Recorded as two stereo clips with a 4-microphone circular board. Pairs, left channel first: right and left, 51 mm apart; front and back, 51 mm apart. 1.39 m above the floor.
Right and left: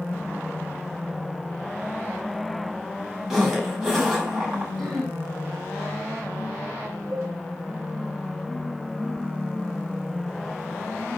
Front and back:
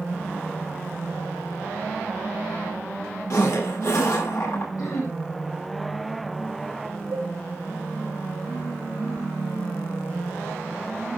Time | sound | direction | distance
3.3 | a zipper | 10° left | 6.5 m
4.8 | throat clearing | 5° left | 6 m
7.1 | dishes clattering | 100° right | 6.5 m